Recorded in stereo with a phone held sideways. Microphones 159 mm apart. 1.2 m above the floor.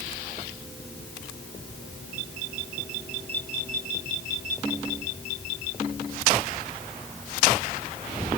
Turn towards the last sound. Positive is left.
No sound to turn to.